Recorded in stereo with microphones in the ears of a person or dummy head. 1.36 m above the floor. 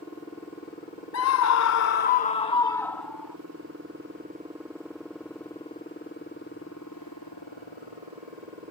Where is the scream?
80° left; by 3.4 s centre (ahead or behind).